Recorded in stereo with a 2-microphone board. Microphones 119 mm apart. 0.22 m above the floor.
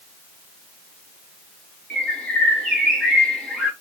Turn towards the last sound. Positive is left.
turn(degrees=10)  # may be behind; listen again after turning